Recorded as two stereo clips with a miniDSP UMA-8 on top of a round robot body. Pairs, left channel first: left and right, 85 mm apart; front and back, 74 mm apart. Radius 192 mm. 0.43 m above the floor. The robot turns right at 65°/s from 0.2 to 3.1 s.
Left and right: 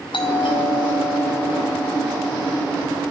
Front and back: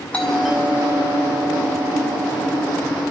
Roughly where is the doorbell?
Left.